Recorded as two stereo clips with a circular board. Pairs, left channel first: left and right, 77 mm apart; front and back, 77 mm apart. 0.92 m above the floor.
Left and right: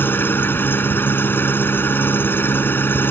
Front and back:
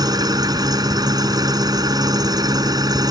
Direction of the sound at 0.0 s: 150° left.